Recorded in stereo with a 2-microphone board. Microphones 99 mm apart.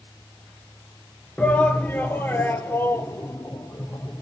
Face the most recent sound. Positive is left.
turn(degrees=25)  # may be behind; listen again after turning